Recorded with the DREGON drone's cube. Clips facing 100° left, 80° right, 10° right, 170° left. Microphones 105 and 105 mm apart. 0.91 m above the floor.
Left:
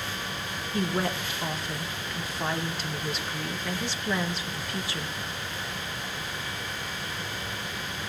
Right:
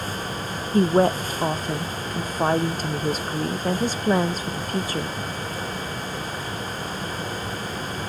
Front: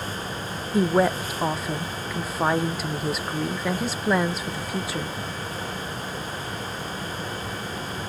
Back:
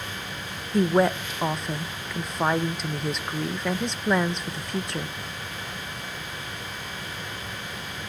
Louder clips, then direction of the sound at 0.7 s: Right 11 dB, even; 95° right.